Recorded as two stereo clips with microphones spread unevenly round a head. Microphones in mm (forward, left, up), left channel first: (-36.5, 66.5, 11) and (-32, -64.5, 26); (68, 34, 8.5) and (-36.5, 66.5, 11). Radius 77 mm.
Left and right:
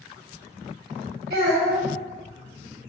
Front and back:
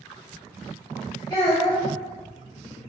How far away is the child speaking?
About 1.5 m.